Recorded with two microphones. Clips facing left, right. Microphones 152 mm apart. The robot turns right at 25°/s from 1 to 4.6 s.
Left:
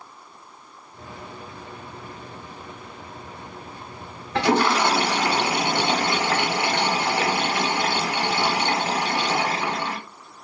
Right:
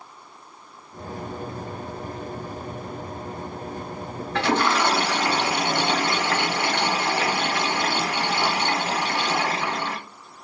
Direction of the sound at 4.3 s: 15° left (ahead or behind).